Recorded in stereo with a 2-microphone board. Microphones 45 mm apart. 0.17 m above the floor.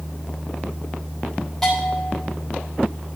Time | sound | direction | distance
1.6 | a bell | 10° left (ahead or behind) | 5.5 m